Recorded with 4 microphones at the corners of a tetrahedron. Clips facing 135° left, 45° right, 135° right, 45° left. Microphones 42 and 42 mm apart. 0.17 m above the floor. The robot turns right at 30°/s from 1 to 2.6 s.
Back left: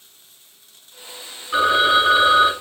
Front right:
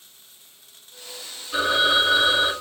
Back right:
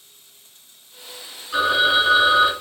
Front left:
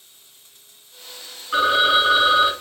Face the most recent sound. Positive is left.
turn(degrees=130)